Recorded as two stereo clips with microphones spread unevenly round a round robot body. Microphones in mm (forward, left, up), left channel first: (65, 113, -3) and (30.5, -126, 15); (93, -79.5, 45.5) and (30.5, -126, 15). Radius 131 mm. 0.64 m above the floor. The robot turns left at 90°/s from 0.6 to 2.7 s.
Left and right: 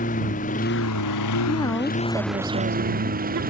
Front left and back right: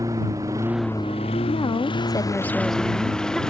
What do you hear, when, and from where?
0.0 s a lawn mower: 145° left; by 3.5 s 45° right
1.5 s a woman speaking: 35° left; by 3.4 s 75° right